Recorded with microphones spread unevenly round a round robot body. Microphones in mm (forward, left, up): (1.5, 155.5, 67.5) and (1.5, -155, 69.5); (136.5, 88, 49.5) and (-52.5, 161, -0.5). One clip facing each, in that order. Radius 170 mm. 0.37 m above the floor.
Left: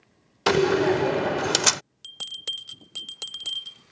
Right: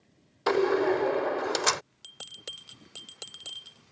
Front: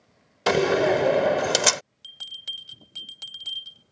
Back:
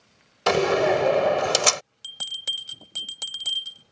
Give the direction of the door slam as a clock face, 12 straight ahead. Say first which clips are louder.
Left 4 dB, even; 10 o'clock.